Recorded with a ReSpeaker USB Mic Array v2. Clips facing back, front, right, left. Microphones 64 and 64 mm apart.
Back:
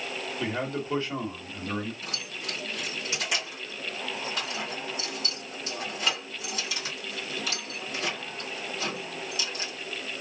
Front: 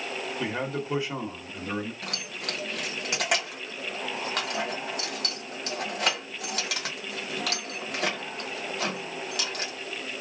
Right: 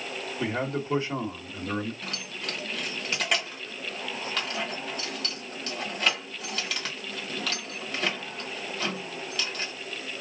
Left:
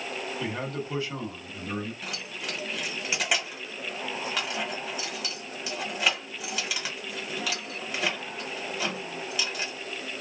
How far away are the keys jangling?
About 1.4 m.